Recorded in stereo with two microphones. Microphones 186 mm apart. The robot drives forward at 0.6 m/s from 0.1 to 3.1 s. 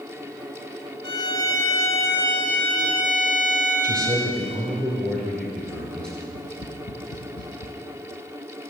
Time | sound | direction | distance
1.0 | a violin | 25° left (ahead or behind) | 0.6 m
3.8 | a man speaking | 5° left (ahead or behind) | 2 m
6.3 | tapping | 55° left (ahead or behind) | 0.9 m